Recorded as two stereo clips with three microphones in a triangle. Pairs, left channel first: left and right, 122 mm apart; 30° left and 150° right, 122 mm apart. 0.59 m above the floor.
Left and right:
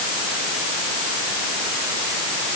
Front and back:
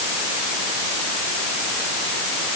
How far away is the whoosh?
No whoosh in this recording.